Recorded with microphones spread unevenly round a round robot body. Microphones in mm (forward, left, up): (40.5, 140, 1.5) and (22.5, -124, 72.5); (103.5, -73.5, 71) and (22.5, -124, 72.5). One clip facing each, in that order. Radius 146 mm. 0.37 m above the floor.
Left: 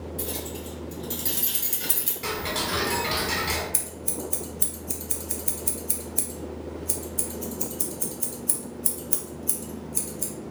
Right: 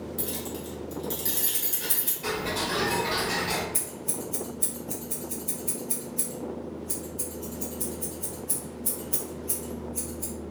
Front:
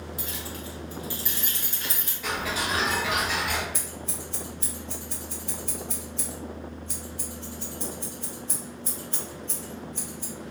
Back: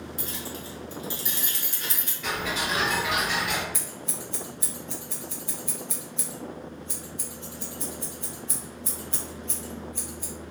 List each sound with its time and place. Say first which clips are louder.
0.2 s keys jangling: even, even; 150° right, 1.1 m; by 2.1 s 115° left, 1.1 m
2.2 s ticking: right 1 dB, even; 110° left, 0.9 m
3.7 s scissors: even, front 1 dB; 135° left, 0.9 m